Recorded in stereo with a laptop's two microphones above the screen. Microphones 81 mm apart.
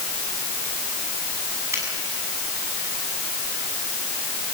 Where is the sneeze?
No sneeze in this recording.